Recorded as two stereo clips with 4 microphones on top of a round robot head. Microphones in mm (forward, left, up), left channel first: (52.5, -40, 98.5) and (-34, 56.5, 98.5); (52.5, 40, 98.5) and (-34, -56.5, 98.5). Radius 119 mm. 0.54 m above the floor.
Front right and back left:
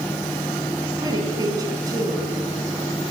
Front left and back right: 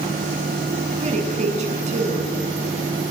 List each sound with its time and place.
1.0 s a woman speaking: 165° right, 7.5 m